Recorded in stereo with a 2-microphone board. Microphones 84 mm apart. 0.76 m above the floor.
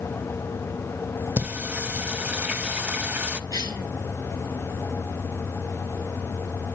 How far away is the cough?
About 4.5 m.